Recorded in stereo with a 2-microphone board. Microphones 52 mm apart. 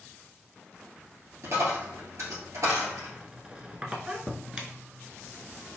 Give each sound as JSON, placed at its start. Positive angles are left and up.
{"t": 1.4, "sound": "a dropped coin", "side_deg": -70, "distance_m": 1.9}
{"t": 3.0, "sound": "a squeak", "side_deg": -20, "distance_m": 0.6}